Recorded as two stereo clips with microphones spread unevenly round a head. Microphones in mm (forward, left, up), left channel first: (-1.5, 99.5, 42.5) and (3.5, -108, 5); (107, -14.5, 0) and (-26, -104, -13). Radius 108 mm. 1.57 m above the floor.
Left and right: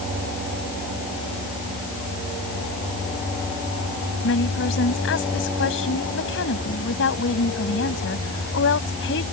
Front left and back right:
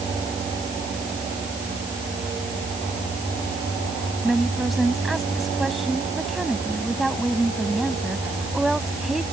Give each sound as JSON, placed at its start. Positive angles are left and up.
{"t": 4.2, "sound": "a woman speaking", "azimuth_deg": 125}